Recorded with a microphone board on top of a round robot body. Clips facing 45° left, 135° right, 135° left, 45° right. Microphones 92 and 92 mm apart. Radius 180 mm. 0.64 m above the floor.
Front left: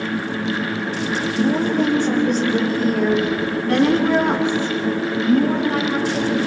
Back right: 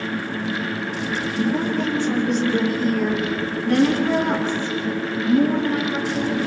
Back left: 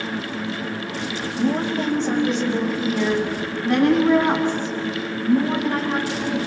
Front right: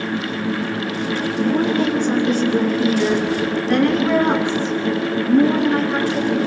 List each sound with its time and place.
1.3 s a woman speaking: 85° left, 5.5 m; by 6.4 s 65° left, 10.5 m